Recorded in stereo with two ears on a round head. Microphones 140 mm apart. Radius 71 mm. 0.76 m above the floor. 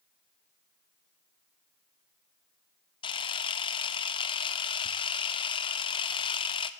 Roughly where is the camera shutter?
Left.